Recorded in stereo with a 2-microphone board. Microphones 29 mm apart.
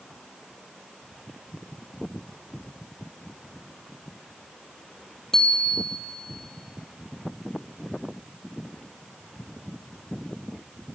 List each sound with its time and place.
5.3 s a bicycle bell: 20° left (ahead or behind), 2.5 m